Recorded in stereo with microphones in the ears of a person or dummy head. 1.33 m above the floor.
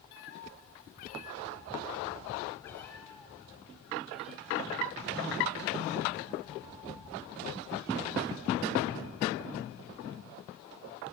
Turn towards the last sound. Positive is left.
turn(degrees=-5)  # may be behind; listen again after turning